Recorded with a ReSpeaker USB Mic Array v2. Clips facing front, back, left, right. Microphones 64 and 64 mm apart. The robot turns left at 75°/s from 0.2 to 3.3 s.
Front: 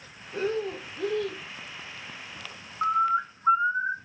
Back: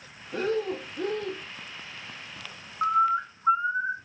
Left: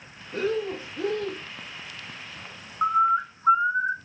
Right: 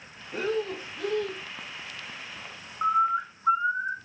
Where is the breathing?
165° right, 0.8 m; by 1.4 s 115° left, 0.8 m.